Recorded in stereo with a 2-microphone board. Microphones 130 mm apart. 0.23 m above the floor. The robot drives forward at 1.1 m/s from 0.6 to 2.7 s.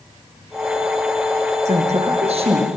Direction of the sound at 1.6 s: 60° right (ahead or behind).